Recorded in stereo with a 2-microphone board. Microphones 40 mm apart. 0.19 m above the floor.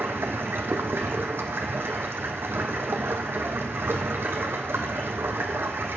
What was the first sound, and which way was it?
Running water, 75° right (ahead or behind).